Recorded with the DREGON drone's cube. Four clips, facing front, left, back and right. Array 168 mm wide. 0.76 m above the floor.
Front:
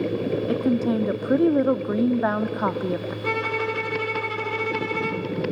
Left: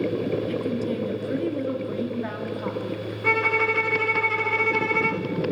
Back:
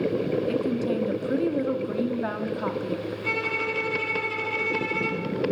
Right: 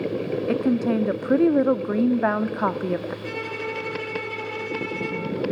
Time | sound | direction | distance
0.5 | a woman speaking | 55° right | 1.1 m
3.2 | a violin | 60° left | 4 m